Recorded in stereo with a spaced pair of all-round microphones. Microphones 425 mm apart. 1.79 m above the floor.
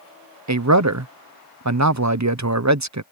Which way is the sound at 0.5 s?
40° right (ahead or behind).